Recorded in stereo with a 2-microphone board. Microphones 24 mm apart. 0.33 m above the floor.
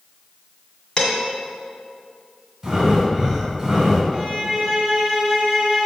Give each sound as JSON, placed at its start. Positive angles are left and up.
{"t": 1.0, "sound": "dishes clattering", "side_deg": 35, "distance_m": 1.8}
{"t": 2.6, "sound": "breathing", "side_deg": -20, "distance_m": 1.9}
{"t": 4.1, "sound": "a violin", "side_deg": -10, "distance_m": 1.7}